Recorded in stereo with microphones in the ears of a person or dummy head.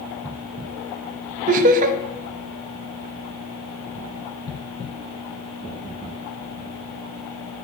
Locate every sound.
1.5 s laughter: 50° right (ahead or behind), 0.6 m